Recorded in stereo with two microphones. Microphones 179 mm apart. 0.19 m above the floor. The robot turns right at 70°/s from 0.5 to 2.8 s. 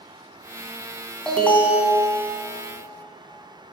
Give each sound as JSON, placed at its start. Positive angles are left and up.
{"t": 1.3, "sound": "an alarm", "side_deg": 5, "distance_m": 1.4}